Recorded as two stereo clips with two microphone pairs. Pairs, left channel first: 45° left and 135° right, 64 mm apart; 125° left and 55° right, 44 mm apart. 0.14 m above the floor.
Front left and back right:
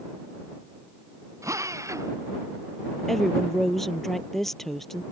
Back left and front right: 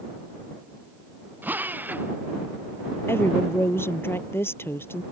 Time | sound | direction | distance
1.4 | a drill | 100° right | ?
3.1 | a woman speaking | 130° left | ?